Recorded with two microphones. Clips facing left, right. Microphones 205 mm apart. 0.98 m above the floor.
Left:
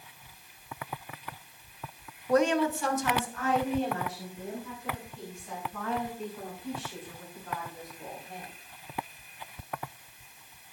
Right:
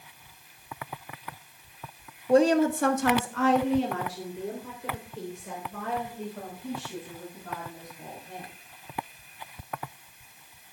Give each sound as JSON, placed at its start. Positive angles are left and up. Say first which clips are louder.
{"t": 2.3, "sound": "a woman speaking", "louder": "right 4 dB", "side_deg": -25, "distance_m": 0.9}